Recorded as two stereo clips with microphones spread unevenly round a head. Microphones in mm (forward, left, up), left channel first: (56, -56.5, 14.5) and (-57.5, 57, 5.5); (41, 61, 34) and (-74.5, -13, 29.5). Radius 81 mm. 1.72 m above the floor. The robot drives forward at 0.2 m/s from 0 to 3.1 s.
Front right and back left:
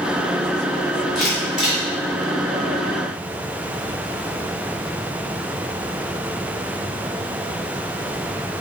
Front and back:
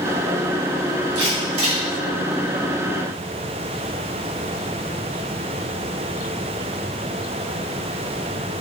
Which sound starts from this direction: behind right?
A camera shutter, at 1.1 s.